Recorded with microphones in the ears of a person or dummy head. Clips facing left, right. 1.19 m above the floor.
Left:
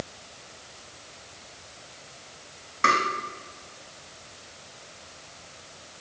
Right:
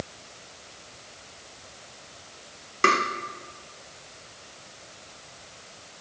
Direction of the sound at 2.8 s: 45° right (ahead or behind).